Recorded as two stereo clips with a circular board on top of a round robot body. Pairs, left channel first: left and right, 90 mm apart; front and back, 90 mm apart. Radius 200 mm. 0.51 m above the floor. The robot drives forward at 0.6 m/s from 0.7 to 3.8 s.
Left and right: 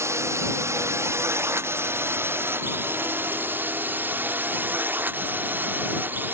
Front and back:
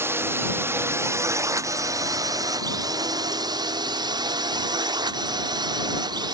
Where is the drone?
130° right; by 6.3 s 155° right.